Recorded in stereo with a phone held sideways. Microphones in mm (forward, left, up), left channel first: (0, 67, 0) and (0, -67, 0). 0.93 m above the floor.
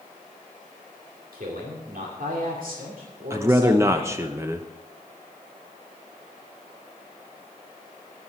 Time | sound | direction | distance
1.3 | a man speaking | 80° right | 2 m
3.3 | a man speaking | 20° right (ahead or behind) | 0.6 m